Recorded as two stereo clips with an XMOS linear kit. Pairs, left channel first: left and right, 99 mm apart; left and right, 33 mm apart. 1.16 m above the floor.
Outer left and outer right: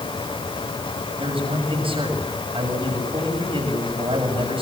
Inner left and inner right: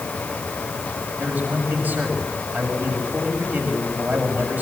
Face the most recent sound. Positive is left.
turn(degrees=-65)  # may be behind; listen again after turning